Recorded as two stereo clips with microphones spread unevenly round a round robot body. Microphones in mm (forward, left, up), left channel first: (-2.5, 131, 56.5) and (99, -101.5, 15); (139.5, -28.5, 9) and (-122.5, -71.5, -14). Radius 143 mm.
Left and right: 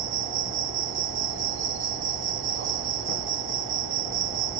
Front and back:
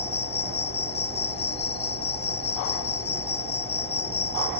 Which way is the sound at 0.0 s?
45° right.